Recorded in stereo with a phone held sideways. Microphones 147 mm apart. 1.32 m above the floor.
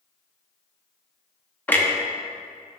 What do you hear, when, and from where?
1.7 s a clunk: 10° left (ahead or behind), 0.8 m